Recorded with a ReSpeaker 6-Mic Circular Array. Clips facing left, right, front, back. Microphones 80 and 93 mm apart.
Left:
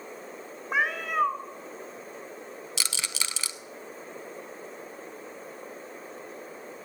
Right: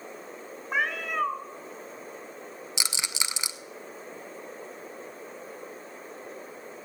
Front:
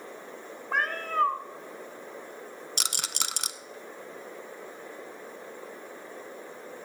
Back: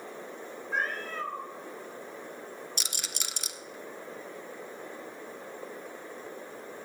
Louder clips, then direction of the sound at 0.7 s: Left 2 dB, front 5 dB; 5° left.